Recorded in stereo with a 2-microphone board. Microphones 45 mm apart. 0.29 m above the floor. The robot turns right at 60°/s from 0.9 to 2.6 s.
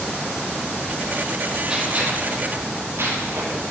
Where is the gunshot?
15° right (ahead or behind), 8 m; by 3.6 s 65° right (ahead or behind), 8 m.